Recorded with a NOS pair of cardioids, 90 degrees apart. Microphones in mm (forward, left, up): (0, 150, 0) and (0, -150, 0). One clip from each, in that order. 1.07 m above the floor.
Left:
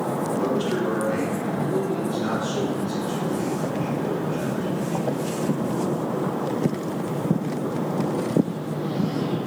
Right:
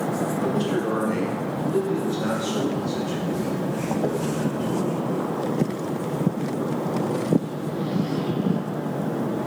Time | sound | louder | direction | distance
0.4 | a man speaking | left 1 dB | straight ahead | 1.2 m